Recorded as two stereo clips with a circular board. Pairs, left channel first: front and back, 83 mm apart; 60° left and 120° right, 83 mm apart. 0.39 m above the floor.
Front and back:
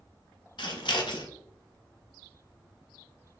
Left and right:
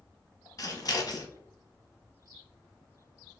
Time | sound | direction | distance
0.6 | scissors | 20° left | 0.7 m